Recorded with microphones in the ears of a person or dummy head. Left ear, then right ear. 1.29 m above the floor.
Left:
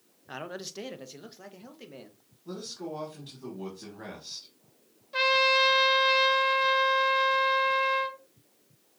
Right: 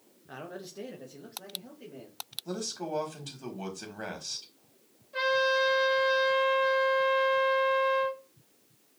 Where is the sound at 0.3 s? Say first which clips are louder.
Left 4 dB; 25° left (ahead or behind), 0.5 m; by 2.2 s 55° left (ahead or behind), 1.4 m.